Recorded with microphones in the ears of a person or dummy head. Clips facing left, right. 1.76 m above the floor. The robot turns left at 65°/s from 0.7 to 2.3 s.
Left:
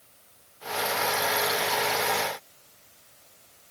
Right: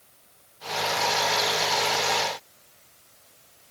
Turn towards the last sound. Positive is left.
No sound to turn to.